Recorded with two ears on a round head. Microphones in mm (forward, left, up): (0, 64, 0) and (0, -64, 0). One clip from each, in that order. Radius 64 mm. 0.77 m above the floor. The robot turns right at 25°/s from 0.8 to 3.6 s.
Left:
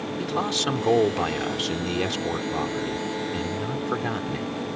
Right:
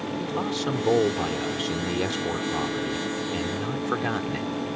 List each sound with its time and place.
0.2 s a man speaking: 135° left; by 4.8 s 155° right